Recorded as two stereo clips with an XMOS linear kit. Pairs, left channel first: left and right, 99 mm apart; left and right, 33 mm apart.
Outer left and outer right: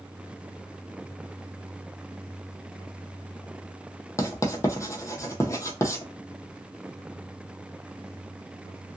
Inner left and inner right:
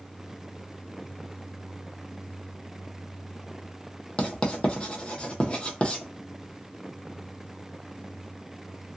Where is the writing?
35° left (ahead or behind), 0.7 m.